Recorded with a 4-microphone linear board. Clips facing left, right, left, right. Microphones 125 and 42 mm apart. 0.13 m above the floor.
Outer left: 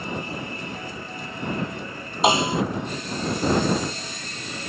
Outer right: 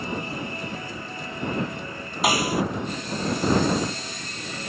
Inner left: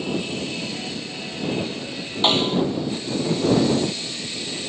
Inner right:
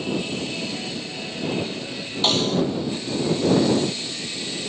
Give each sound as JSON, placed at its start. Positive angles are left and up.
{"t": 2.2, "sound": "a snare drum", "side_deg": 25}